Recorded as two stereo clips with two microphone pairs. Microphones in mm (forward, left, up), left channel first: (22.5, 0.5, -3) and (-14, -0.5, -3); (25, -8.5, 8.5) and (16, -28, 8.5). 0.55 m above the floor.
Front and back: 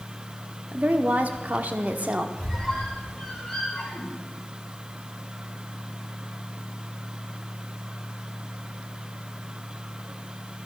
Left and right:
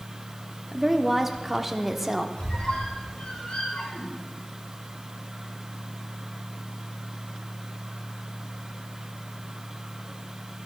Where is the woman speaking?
170° left, 1.0 m.